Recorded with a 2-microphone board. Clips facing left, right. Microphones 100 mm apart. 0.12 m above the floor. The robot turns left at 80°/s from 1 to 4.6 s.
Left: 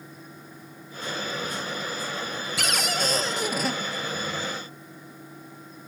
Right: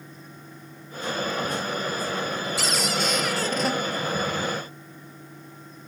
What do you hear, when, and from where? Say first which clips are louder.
2.6 s a cupboard door: left 1 dB; 90° left, 0.8 m; by 3.8 s 5° right, 0.8 m